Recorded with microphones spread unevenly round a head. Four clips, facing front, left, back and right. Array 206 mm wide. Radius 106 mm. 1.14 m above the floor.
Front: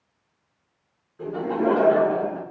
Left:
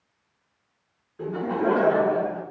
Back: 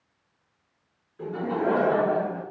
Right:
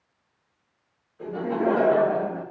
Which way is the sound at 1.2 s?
90° left.